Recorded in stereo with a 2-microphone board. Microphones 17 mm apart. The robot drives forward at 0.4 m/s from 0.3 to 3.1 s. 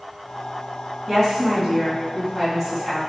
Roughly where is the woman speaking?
Centre.